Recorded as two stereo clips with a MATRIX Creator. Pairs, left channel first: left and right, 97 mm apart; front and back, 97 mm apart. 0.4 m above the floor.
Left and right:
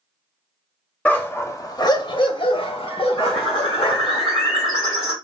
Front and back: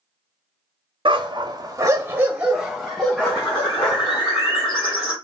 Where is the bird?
Straight ahead, 2 m.